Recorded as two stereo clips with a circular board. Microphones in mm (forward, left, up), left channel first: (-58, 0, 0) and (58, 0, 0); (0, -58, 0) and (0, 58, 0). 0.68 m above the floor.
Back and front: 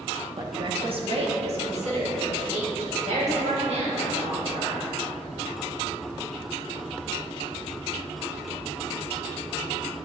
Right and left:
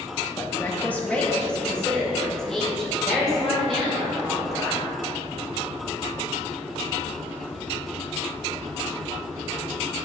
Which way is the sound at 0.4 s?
30° right.